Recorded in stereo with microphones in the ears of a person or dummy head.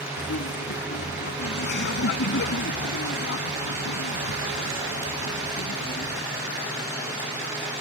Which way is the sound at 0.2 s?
60° left (ahead or behind).